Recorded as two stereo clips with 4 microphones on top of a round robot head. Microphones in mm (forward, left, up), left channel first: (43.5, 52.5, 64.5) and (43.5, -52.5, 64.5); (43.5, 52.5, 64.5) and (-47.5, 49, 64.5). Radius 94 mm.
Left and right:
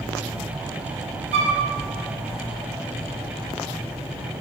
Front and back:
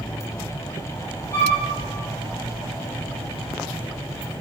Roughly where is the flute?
Right.